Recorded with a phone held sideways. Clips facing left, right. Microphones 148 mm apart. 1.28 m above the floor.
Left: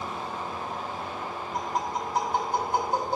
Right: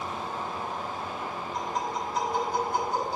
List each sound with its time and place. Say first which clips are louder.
1.5 s tapping: left 2 dB; 65° left (ahead or behind), 3 m